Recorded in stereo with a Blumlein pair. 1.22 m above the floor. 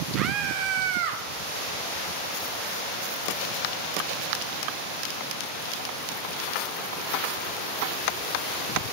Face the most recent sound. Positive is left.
turn(degrees=-50)